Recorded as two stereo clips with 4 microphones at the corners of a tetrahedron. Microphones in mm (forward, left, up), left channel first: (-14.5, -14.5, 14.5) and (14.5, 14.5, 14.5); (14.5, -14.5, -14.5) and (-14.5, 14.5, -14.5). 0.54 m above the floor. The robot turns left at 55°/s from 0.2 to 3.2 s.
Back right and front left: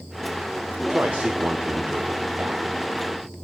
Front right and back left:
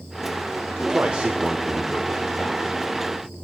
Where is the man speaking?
90° left, 1.2 m; by 2.8 s 15° right, 1.2 m.